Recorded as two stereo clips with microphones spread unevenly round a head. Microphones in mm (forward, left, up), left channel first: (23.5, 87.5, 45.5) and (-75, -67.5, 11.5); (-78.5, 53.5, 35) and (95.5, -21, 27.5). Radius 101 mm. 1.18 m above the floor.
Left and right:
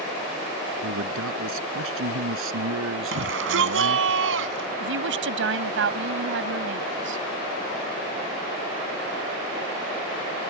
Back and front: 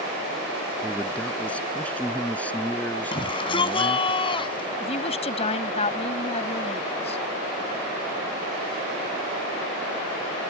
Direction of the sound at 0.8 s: 120° right.